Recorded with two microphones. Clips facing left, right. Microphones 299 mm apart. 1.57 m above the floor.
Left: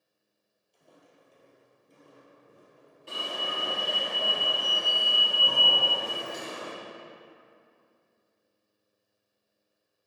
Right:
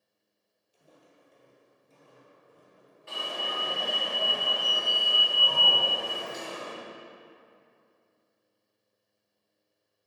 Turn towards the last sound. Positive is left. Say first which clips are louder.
# even
turn(degrees=40)  # may be behind; listen again after turning